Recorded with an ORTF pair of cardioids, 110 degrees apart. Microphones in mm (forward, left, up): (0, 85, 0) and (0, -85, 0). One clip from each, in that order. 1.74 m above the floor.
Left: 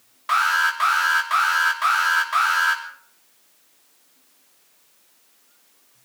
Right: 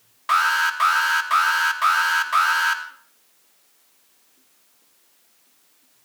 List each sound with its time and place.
0.3 s an alarm: 15° right, 2.5 m